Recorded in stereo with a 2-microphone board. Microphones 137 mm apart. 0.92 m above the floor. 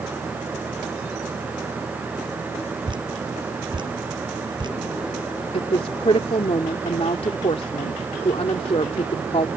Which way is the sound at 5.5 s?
45° left (ahead or behind).